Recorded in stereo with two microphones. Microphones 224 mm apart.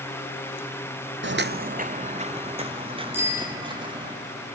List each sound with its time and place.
1.2 s footsteps: 60° right (ahead or behind), 0.5 m; by 4.1 s 20° right (ahead or behind), 4 m
3.1 s a bicycle bell: 10° right (ahead or behind), 6.5 m